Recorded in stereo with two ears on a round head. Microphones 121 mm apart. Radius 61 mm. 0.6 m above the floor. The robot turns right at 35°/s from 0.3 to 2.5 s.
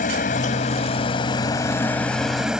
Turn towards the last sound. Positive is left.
turn(degrees=-175)